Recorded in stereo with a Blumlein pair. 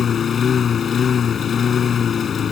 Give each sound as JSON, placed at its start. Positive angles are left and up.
{"t": 0.0, "sound": "a lawn mower", "azimuth_deg": 25}